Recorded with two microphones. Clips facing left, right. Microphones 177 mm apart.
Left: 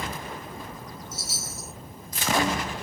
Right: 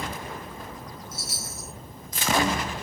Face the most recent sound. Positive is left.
turn(degrees=-65)  # may be behind; listen again after turning